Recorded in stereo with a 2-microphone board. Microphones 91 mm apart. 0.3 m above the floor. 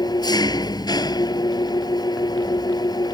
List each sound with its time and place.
0.0 s an engine running: 50° left (ahead or behind)